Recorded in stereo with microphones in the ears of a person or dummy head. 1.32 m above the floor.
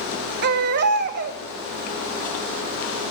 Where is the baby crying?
60° right (ahead or behind), 0.8 m.